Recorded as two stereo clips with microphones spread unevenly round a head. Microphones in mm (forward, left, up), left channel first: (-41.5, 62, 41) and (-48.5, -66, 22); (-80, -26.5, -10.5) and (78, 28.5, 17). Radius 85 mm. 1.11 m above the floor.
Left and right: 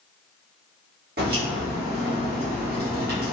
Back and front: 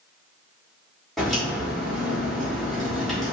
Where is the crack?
65° right, 1.1 m.